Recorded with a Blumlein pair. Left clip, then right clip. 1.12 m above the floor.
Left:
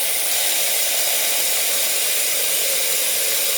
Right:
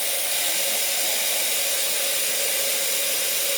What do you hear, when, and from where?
0.0 s running water: 70° left, 1.3 m